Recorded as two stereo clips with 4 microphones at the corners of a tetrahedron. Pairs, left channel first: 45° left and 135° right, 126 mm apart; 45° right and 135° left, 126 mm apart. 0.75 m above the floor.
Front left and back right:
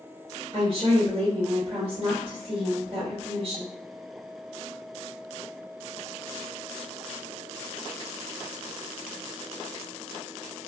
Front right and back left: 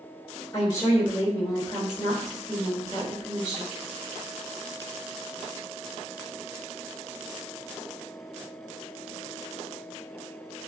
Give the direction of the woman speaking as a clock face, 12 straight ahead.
3 o'clock.